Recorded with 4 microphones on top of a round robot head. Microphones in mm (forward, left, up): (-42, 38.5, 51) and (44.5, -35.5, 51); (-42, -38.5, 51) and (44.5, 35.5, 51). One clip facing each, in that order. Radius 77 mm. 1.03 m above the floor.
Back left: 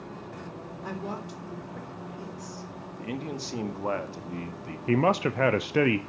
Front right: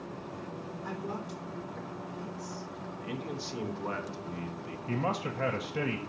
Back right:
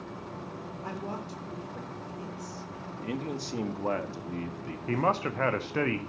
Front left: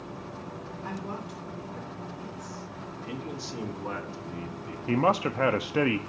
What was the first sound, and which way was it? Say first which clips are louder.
A woman speaking: back left 3 dB, even; 170° left.